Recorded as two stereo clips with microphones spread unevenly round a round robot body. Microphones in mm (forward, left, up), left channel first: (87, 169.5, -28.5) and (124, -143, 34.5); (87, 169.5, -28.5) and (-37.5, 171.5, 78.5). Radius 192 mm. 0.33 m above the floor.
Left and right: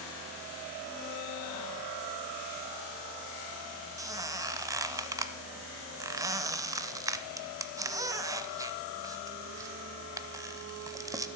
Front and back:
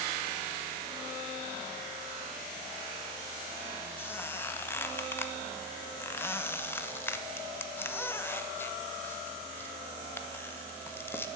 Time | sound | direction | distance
4.0 | a squeak | 5° left | 0.6 m